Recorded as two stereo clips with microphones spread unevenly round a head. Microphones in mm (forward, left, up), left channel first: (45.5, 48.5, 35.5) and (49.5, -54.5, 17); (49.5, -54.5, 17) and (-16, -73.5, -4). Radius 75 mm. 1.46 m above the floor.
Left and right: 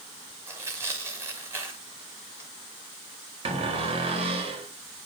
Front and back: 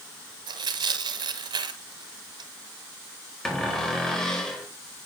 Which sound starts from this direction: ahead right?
A cupboard door, at 3.5 s.